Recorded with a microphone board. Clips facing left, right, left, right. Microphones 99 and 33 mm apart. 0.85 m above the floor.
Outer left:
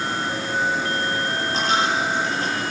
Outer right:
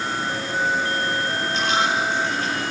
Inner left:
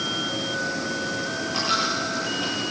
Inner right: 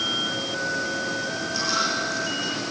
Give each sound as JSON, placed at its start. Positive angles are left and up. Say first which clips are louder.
{"t": 1.5, "sound": "a dropped coin", "louder": "even, inner left 1 dB", "side_deg": 35, "distance_m": 8.0}